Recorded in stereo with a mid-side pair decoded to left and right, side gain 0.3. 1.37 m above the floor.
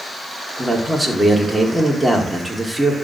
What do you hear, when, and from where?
0.6 s a man speaking: 10° right, 5 m